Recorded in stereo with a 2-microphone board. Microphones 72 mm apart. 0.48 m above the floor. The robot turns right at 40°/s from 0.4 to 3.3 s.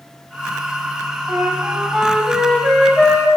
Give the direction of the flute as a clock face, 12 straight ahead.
1 o'clock.